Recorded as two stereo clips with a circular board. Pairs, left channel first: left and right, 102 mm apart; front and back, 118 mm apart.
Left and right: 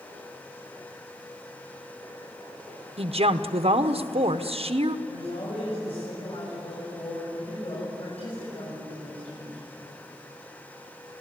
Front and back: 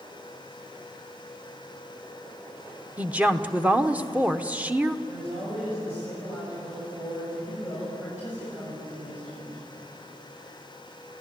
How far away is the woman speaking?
About 1.0 m.